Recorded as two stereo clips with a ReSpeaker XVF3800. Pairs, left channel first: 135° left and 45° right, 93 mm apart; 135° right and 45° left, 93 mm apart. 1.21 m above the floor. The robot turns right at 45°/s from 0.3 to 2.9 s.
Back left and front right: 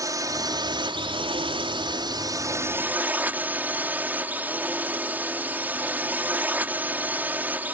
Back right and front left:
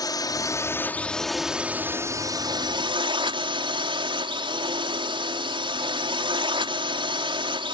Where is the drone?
90° right; by 7.8 s 25° left.